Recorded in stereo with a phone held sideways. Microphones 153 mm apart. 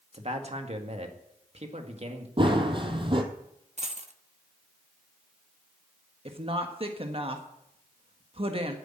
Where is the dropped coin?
50° right (ahead or behind), 0.9 m.